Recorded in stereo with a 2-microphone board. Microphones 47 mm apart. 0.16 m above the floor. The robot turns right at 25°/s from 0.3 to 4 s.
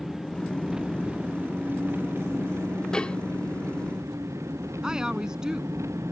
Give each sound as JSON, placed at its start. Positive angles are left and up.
{"t": 0.0, "sound": "an engine running", "azimuth_deg": -175}
{"t": 2.9, "sound": "dishes clattering", "side_deg": 15}
{"t": 4.8, "sound": "a woman speaking", "side_deg": -15}